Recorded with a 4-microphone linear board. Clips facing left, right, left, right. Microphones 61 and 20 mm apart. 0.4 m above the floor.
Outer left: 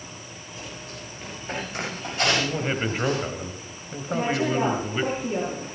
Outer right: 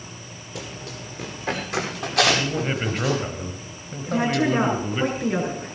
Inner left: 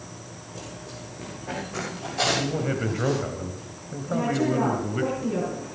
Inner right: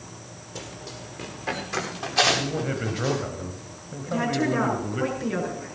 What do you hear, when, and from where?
0.6 s running footsteps: 75° right (ahead or behind), 7 m; by 3.2 s 80° right, 8.5 m
2.2 s a man speaking: 5° left (ahead or behind), 1.8 m
4.1 s a woman speaking: 75° right (ahead or behind), 6.5 m